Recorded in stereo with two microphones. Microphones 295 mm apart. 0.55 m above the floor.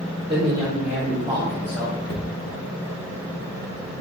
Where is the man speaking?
20° right (ahead or behind), 1.5 m; by 2.0 s 10° left (ahead or behind), 1.7 m.